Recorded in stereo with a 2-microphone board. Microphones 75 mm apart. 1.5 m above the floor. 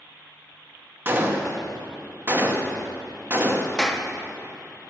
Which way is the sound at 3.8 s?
10° left (ahead or behind).